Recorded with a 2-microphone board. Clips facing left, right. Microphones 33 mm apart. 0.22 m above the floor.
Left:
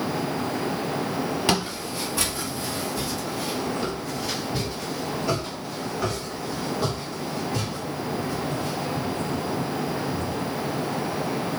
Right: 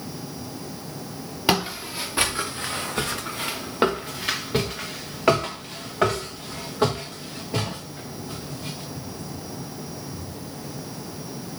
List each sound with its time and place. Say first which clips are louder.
1.5 s footsteps: right 1 dB; 15° right (ahead or behind), 1.0 m; by 8.8 s 55° right (ahead or behind), 3 m